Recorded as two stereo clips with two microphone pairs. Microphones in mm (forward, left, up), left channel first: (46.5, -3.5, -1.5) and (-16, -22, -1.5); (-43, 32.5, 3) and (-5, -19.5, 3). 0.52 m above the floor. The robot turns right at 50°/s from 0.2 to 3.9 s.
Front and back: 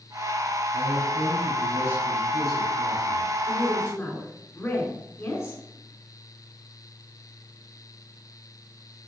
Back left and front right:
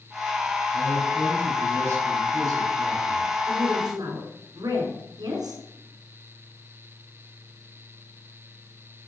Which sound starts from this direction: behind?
A man speaking, at 0.7 s.